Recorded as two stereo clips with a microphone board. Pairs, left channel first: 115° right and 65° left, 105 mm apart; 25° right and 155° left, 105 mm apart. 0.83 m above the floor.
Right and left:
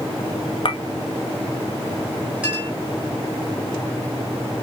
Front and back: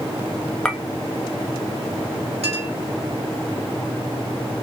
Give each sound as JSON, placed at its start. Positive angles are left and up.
{"t": 0.7, "sound": "a clink", "azimuth_deg": -100, "distance_m": 0.6}
{"t": 2.4, "sound": "a clink", "azimuth_deg": 145, "distance_m": 4.0}